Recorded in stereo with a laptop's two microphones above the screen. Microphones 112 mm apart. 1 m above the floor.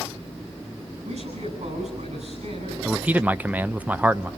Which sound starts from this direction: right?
A man speaking, at 1.0 s.